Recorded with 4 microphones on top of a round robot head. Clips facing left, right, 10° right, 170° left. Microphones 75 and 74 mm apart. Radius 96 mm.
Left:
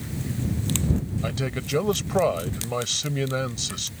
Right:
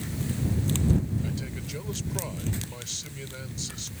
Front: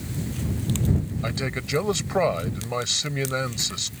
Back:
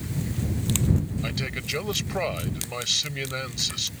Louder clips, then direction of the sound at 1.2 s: Left 6 dB, front 3 dB; 55° left.